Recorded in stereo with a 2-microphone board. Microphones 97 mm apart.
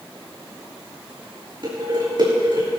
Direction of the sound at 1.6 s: 55° right (ahead or behind).